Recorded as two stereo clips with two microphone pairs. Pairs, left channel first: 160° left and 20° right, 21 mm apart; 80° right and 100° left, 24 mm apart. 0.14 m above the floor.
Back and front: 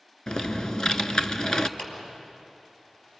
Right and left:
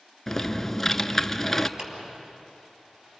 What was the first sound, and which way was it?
Typing on a keyboard, 155° right.